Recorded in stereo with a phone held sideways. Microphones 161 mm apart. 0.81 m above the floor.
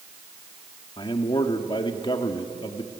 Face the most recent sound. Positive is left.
turn(degrees=30)  # may be behind; listen again after turning